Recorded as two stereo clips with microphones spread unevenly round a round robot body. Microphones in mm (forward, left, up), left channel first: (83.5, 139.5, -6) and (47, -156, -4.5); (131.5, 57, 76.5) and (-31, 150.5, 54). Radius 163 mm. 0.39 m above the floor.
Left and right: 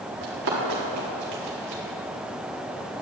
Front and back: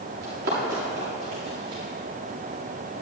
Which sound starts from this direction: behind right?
Running footsteps, at 0.2 s.